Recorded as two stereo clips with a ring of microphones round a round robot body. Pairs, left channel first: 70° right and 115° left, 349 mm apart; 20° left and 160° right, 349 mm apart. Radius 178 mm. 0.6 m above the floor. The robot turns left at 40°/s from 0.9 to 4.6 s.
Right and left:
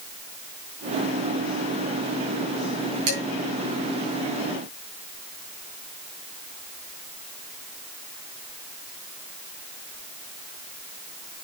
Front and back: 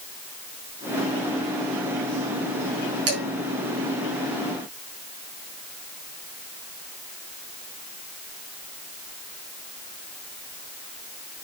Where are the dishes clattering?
150° left, 5.5 m; by 3.2 s 145° left, 5.5 m.